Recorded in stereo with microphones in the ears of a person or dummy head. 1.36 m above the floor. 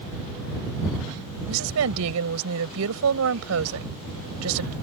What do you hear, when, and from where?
1.5 s a woman speaking: 85° right